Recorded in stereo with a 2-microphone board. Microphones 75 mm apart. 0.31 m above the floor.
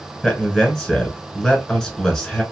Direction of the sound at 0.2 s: 5° left (ahead or behind).